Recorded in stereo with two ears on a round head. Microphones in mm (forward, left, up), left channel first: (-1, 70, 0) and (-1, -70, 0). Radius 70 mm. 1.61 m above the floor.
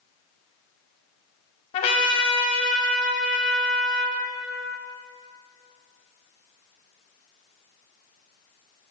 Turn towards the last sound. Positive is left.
turn(degrees=35)  # may be behind; listen again after turning